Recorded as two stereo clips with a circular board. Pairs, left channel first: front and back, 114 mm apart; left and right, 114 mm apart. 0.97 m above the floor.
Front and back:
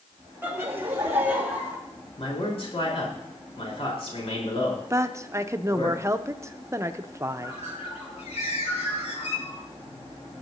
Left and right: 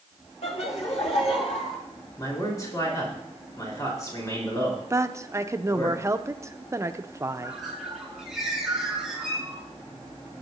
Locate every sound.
0.4 s laughter: 110° left, 2 m
2.2 s a man speaking: 30° left, 4 m
4.9 s a woman speaking: 135° right, 0.7 m
7.4 s a bird: 5° right, 4 m